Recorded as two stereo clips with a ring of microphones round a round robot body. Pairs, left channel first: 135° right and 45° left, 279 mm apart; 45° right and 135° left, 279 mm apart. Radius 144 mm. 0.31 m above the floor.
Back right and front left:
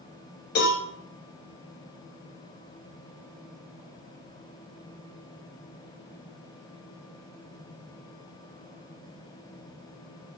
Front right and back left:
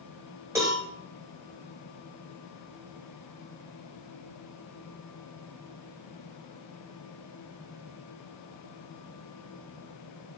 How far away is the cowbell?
About 1.1 m.